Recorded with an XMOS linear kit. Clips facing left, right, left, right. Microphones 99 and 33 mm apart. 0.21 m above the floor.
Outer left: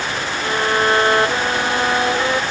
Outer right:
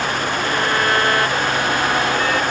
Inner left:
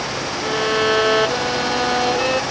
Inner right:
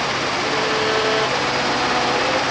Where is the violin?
25° left (ahead or behind).